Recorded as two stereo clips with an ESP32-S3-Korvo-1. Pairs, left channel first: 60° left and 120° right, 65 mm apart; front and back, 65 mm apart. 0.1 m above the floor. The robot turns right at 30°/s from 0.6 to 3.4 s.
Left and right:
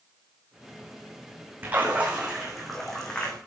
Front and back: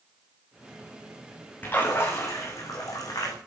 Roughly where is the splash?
Ahead right.